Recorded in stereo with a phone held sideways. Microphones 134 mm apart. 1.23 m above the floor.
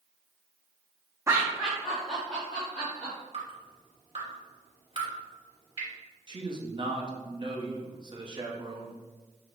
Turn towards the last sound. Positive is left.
turn(degrees=-35)  # may be behind; listen again after turning